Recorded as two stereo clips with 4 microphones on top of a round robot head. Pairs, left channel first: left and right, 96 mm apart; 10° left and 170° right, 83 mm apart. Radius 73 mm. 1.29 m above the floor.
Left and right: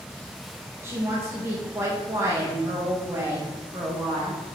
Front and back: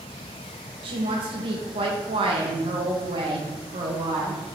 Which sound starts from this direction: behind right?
A woman speaking, at 0.8 s.